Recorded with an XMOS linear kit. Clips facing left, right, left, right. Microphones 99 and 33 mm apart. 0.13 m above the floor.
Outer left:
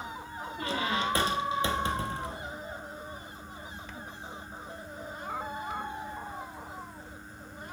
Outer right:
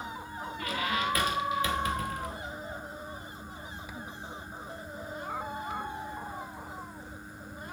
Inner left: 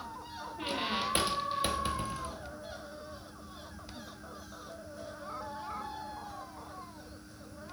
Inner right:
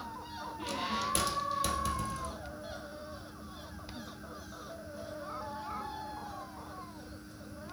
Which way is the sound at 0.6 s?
30° left (ahead or behind).